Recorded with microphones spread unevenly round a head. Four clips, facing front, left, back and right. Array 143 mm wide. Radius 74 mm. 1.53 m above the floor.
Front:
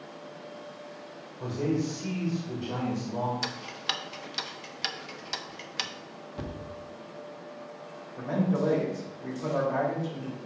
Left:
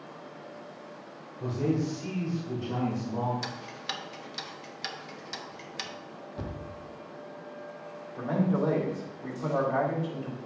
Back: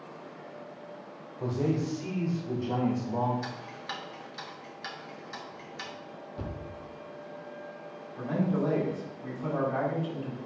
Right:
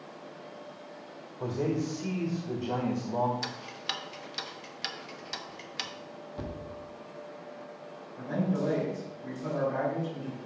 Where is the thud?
35° left, 1.0 m.